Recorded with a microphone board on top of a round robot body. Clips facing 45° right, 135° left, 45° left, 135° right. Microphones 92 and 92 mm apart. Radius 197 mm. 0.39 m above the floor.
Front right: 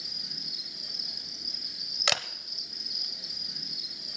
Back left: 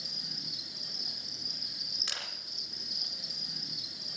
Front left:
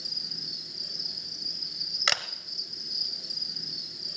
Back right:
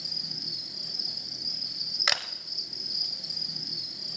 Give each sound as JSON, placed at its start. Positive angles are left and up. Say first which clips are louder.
{"t": 0.0, "sound": "an insect", "louder": "even, back right 2 dB", "azimuth_deg": -165, "distance_m": 3.5}
{"t": 2.1, "sound": "a camera shutter", "louder": "front right 13 dB, front left 1 dB", "azimuth_deg": -50, "distance_m": 0.8}